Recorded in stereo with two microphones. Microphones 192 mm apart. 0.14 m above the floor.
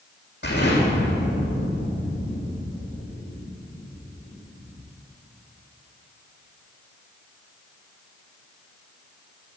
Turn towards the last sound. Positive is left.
turn(degrees=65)  # may be behind; listen again after turning